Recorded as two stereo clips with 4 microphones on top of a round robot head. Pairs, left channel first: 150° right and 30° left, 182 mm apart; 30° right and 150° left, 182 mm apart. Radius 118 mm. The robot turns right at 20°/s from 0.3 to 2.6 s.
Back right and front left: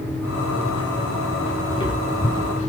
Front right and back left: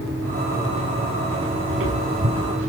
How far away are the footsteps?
About 7 m.